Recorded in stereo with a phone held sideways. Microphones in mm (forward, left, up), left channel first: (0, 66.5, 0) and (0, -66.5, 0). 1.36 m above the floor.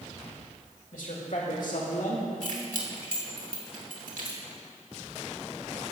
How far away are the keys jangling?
About 2.5 m.